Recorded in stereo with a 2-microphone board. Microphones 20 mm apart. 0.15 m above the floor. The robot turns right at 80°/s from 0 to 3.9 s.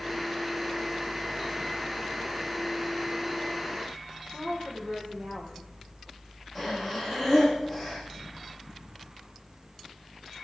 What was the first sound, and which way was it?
A woman speaking, 20° right (ahead or behind).